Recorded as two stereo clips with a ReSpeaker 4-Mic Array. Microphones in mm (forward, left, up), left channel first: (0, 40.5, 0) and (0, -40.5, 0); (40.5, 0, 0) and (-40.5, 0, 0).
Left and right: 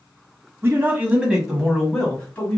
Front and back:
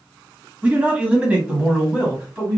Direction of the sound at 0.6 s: 115° right.